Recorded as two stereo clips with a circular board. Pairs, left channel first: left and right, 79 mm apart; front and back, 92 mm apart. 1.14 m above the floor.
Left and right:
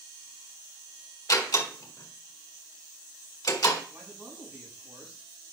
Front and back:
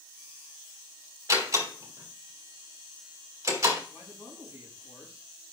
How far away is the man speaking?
About 7.5 m.